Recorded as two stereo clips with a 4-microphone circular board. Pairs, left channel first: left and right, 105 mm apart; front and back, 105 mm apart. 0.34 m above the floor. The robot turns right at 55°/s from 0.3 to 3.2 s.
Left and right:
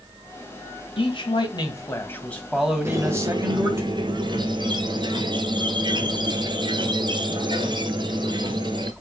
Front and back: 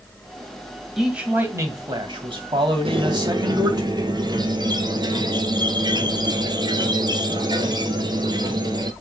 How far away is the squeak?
About 1.2 m.